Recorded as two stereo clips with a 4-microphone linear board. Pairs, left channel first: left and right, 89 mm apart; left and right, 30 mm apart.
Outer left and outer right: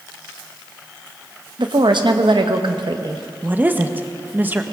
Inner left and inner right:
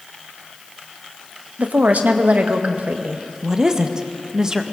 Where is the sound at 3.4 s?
20° right (ahead or behind), 0.9 m.